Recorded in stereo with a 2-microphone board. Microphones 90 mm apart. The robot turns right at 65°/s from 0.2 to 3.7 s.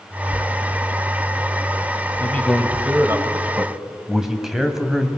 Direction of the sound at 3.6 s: 15° right (ahead or behind).